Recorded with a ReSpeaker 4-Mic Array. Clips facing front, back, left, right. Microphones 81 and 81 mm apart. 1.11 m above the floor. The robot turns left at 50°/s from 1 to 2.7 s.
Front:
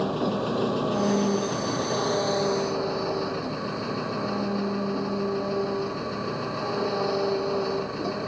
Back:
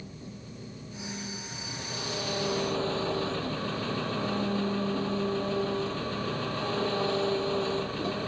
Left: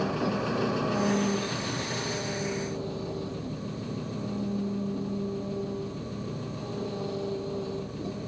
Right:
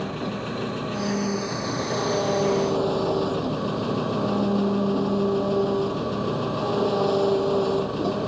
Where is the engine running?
5° left; by 8.3 s 80° right.